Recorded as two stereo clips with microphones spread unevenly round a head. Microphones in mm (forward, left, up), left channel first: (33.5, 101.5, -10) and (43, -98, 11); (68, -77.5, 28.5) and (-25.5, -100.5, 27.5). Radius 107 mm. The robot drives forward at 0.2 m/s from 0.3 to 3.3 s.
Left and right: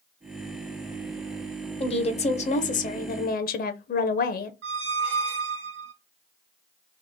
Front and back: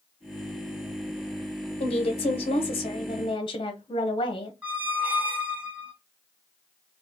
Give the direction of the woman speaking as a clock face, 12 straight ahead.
11 o'clock.